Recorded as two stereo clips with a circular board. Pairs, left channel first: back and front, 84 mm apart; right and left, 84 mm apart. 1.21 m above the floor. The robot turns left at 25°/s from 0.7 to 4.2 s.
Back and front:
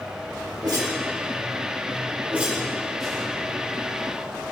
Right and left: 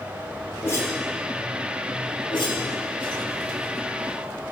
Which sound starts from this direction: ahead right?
A whoosh, at 0.6 s.